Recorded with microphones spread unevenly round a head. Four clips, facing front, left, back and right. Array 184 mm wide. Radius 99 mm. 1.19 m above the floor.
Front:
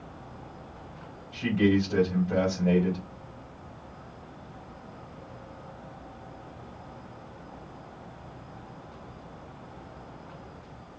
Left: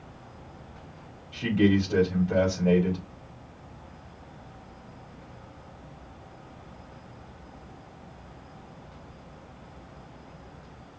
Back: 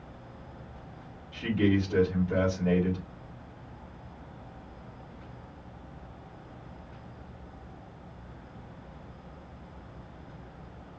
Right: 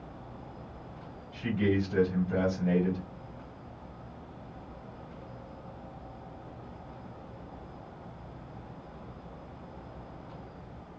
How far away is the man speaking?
About 2 m.